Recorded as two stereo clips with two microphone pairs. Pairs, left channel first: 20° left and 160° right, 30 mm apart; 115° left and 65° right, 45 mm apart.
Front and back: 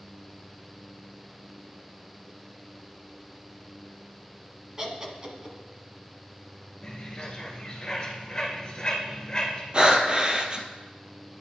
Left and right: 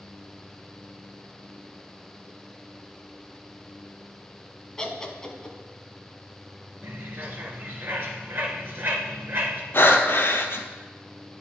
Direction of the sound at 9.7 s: 150° left.